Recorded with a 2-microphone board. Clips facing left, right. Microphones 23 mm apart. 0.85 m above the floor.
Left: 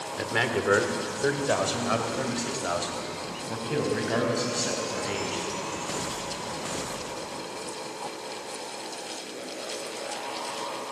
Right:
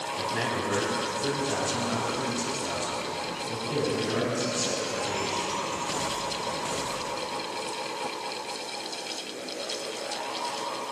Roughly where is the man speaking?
Left.